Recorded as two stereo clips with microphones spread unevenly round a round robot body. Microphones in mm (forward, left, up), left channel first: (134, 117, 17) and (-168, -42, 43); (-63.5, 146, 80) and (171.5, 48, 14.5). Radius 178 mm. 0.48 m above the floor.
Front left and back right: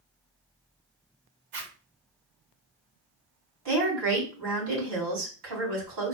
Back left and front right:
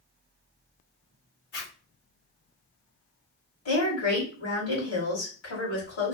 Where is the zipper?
175° right, 1.8 m.